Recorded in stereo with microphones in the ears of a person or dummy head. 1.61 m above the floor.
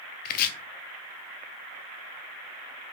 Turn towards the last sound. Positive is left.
turn(degrees=50)  # may be behind; listen again after turning